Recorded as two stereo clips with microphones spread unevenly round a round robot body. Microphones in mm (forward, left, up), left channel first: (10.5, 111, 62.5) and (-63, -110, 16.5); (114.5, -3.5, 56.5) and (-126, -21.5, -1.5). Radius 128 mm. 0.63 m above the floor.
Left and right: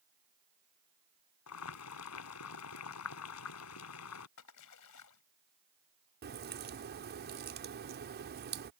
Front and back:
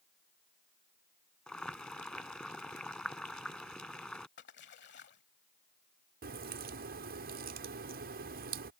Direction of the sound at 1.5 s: 90° left.